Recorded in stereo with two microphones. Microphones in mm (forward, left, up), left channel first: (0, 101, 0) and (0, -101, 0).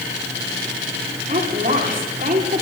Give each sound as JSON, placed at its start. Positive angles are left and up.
{"t": 1.3, "sound": "a woman speaking", "side_deg": -45, "distance_m": 5.5}